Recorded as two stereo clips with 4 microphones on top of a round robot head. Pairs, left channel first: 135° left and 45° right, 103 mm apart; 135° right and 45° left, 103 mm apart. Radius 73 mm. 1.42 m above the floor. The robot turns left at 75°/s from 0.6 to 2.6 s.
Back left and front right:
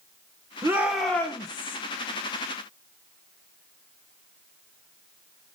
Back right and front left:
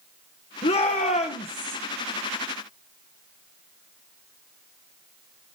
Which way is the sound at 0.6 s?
105° right.